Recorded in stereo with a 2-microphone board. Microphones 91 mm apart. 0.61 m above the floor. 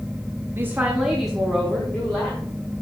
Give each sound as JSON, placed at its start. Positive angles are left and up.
{"t": 0.6, "sound": "a woman speaking", "side_deg": -25, "distance_m": 0.8}